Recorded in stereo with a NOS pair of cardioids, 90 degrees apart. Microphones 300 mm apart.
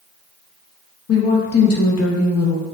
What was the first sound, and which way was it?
A woman speaking, 55° left.